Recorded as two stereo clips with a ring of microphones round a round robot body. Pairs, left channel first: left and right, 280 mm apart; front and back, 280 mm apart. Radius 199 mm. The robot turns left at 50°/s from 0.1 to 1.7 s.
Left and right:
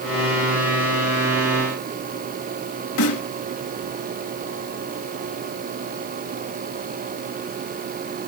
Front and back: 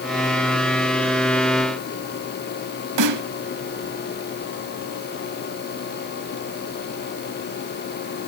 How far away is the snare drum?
About 0.9 m.